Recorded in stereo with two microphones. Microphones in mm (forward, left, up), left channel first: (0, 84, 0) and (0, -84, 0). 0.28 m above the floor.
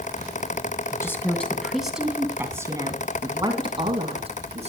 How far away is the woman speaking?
About 2.5 m.